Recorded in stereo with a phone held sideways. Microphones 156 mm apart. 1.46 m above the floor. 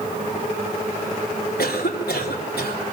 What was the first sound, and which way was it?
A cough, 85° left.